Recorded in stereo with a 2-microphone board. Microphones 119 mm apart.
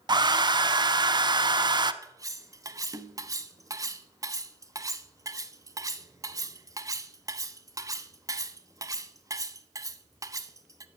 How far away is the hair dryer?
About 0.6 m.